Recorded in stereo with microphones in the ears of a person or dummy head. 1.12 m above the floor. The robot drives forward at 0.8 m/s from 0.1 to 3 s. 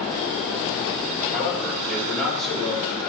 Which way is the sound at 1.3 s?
Centre (ahead or behind).